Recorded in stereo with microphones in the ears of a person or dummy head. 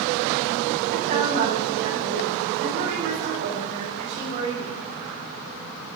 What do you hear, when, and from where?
0.9 s a woman speaking: 60° right (ahead or behind), 3.5 m